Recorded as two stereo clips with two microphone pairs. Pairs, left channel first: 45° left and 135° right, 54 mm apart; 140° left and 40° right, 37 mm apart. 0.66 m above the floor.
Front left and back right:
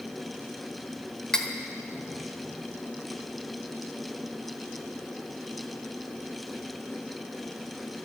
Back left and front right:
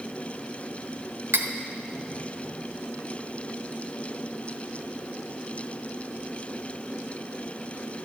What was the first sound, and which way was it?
Cutlery clinking, 35° right.